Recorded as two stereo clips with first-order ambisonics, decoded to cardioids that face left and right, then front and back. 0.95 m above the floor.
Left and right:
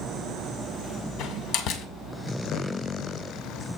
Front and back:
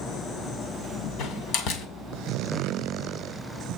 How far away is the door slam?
About 2.0 m.